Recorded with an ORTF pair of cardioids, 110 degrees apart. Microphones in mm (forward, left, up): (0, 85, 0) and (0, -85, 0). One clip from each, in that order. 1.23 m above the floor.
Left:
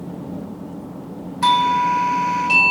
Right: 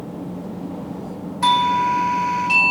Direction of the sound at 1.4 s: 5° left.